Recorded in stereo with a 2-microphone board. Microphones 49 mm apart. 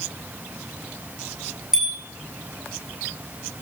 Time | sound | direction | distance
1.7 | a bicycle bell | 10° right (ahead or behind) | 9 m